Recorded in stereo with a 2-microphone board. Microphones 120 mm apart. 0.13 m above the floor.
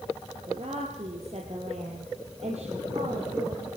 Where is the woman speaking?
60° right (ahead or behind), 2.5 m; by 3.6 s 65° right (ahead or behind), 4 m.